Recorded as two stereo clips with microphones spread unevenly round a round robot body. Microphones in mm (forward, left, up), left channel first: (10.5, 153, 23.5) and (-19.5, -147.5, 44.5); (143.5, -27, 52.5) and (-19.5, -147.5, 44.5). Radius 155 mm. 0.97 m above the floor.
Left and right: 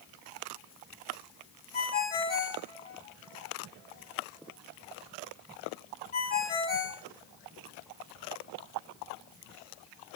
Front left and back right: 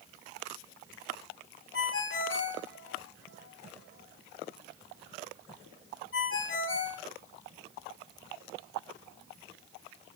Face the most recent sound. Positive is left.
turn(degrees=25)